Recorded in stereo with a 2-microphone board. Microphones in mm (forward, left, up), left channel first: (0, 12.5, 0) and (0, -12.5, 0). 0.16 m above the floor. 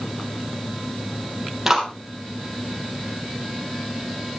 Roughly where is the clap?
Centre.